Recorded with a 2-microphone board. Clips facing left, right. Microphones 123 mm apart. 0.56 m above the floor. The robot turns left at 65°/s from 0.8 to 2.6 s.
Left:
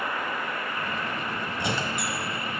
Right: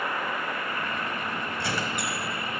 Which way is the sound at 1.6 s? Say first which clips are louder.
Left 2 dB; 165° left.